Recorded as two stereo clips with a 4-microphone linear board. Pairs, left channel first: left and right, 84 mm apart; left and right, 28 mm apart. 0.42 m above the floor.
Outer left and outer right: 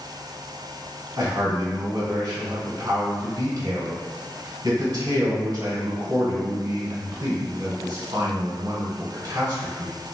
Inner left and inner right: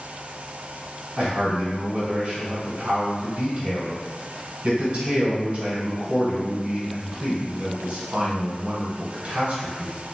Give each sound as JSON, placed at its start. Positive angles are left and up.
{"t": 1.2, "sound": "a man speaking", "side_deg": -50, "distance_m": 1.4}